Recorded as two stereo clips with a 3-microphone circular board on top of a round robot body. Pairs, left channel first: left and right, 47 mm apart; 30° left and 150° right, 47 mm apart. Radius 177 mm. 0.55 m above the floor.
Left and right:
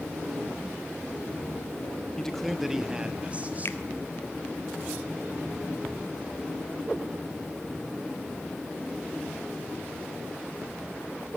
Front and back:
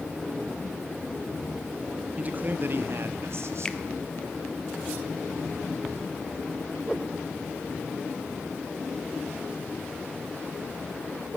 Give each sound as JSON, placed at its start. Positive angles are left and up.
{"t": 2.2, "sound": "a man speaking", "azimuth_deg": 160, "distance_m": 1.3}
{"t": 3.6, "sound": "a finger snap", "azimuth_deg": 100, "distance_m": 0.9}